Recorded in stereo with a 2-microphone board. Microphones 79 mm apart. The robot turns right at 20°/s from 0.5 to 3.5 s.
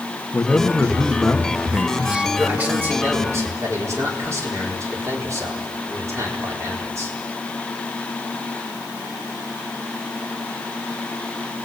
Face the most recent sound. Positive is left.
turn(degrees=-40)  # may be behind; listen again after turning